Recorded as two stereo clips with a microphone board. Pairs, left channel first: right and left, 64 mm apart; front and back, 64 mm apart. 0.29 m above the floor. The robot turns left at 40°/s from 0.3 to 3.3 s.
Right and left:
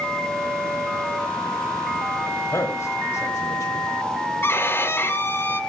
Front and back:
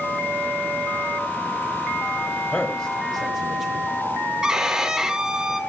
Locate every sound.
2.5 s a man speaking: 65° right, 1.5 m; by 3.9 s 100° right, 1.5 m
4.4 s a violin: 105° right, 1.2 m